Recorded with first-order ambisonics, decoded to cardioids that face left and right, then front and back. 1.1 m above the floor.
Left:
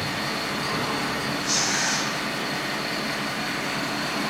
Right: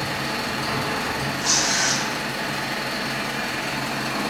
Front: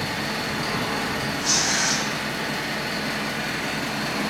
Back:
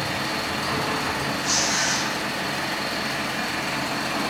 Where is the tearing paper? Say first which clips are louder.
Right 4 dB, front 1 dB; 65° right, 0.6 m.